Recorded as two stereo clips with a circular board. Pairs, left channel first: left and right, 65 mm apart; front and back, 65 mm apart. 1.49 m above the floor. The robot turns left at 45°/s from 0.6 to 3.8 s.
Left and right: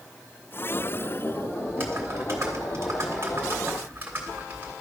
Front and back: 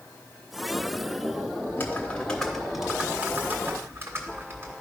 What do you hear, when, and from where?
1.7 s typing on a keyboard: 45° right, 1.7 m; by 4.7 s 140° right, 1.7 m